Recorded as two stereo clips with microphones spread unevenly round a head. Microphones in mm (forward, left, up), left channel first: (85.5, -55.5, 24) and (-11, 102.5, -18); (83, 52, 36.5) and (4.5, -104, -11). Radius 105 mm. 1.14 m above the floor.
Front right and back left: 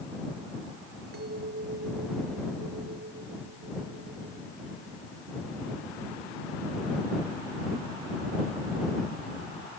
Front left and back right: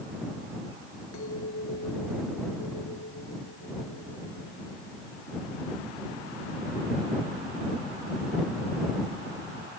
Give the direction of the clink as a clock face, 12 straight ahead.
9 o'clock.